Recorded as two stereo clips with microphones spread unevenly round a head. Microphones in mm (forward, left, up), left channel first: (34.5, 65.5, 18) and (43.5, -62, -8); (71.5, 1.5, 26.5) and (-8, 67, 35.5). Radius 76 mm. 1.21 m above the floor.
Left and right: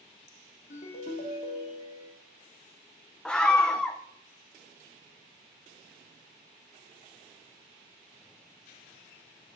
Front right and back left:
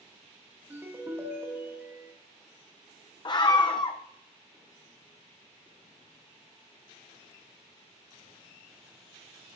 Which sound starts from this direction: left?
A ringtone, at 0.7 s.